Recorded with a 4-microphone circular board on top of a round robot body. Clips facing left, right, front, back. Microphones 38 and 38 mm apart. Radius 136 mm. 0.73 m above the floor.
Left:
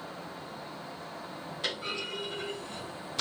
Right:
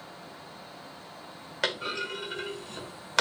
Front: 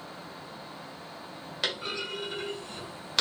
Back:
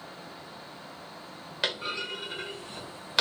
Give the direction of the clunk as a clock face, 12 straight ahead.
3 o'clock.